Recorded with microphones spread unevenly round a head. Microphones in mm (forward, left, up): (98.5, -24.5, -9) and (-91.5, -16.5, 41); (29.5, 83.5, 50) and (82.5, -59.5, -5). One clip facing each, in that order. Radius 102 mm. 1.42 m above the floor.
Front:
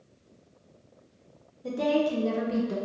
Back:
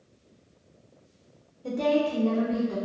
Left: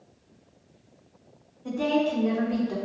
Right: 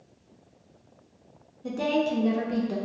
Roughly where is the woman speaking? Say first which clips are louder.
Back 1 dB, left 1 dB; right.